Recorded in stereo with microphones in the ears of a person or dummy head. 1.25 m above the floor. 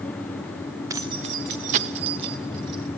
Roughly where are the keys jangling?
Centre.